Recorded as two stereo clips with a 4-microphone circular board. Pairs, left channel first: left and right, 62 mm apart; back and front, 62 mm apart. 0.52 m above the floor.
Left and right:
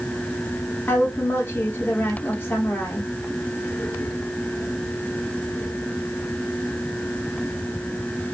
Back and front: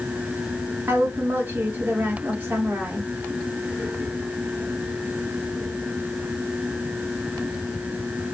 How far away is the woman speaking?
About 1.0 m.